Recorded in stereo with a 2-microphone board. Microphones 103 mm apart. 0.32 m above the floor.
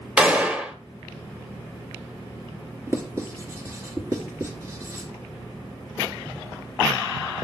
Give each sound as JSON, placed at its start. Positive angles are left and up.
{"t": 0.2, "sound": "a gunshot", "side_deg": -10, "distance_m": 0.9}
{"t": 2.9, "sound": "writing", "side_deg": -25, "distance_m": 2.0}